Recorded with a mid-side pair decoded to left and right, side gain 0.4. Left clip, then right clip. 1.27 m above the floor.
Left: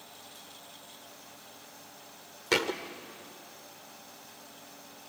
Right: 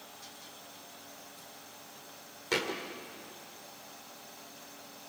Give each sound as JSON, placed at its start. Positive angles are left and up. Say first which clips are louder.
{"t": 2.5, "sound": "a thud", "louder": "left 4 dB", "azimuth_deg": 45, "distance_m": 2.0}